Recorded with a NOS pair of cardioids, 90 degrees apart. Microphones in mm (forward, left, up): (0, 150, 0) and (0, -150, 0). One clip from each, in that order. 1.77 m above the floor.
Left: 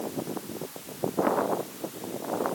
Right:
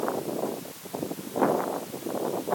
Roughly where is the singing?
No singing in this recording.